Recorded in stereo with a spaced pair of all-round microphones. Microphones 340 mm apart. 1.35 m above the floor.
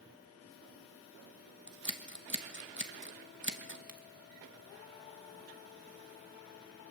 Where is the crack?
80° right, 1.5 m.